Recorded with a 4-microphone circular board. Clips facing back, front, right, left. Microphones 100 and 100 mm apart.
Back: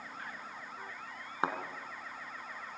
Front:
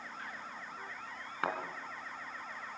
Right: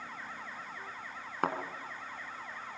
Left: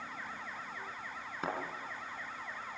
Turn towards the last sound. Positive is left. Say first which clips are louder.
# back 2 dB, right 5 dB
turn(degrees=-115)